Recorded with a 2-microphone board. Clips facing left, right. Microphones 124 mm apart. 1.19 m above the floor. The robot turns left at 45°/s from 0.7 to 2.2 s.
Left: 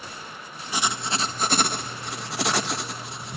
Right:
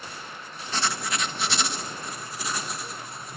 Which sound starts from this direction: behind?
Writing, at 0.7 s.